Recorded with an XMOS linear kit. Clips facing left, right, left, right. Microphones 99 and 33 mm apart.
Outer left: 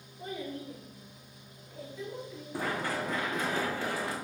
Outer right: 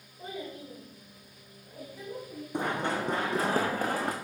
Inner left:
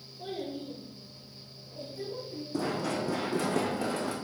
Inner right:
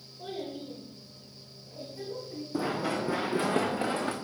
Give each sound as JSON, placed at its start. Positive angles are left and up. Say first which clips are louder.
{"t": 0.2, "sound": "a child speaking", "louder": "outer left 1 dB, inner left 1 dB", "side_deg": 0, "distance_m": 5.0}
{"t": 2.5, "sound": "running footsteps", "louder": "outer right 3 dB, inner right 1 dB", "side_deg": -20, "distance_m": 1.6}